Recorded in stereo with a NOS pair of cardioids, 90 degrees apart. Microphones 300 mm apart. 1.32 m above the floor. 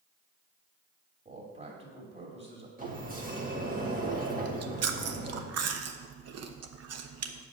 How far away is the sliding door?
About 2 m.